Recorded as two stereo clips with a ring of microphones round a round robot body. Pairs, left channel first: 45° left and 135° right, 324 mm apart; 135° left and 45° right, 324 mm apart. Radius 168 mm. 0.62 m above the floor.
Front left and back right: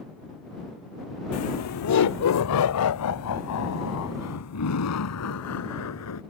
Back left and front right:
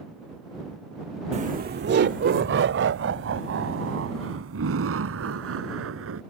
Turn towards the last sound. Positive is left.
turn(degrees=5)